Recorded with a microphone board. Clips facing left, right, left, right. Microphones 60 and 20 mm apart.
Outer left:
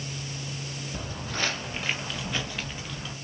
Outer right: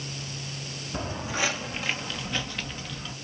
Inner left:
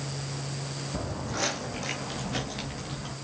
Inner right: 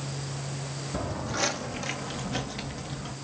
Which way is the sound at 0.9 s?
30° right (ahead or behind).